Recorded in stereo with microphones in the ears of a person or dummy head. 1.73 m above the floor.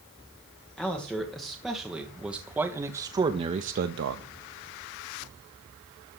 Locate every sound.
0.8 s a man speaking: 5° left (ahead or behind), 2.5 m; by 4.2 s 70° right (ahead or behind), 0.6 m